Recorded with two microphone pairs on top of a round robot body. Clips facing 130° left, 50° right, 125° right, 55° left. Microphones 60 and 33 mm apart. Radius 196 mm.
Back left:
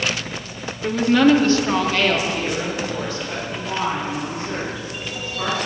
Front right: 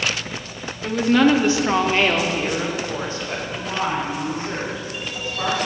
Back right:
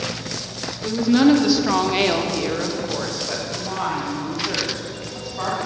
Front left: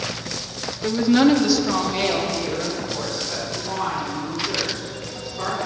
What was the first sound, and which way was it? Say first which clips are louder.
A woman speaking: back left 1 dB, even; 75° left.